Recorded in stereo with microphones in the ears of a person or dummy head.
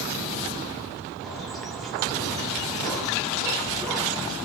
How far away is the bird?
About 0.5 m.